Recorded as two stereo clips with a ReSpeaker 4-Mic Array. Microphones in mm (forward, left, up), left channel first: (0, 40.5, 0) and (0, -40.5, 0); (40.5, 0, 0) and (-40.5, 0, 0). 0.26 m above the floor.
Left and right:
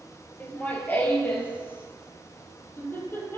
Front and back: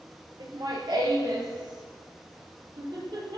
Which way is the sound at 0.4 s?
160° left.